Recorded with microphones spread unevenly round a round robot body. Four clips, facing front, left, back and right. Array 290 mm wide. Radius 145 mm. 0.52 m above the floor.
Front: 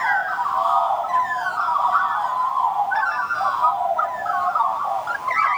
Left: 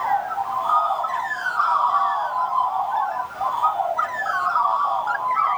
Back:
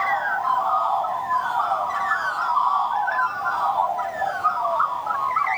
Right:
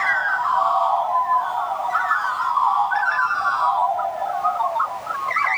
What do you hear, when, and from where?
Only background noise.